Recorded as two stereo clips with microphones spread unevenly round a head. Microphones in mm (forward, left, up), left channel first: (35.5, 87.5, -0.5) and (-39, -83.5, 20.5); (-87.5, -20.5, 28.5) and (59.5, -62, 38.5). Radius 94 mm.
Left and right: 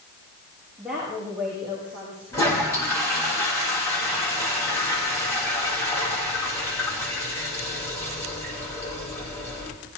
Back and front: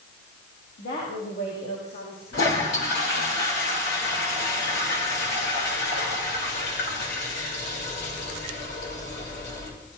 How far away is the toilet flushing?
About 6.5 m.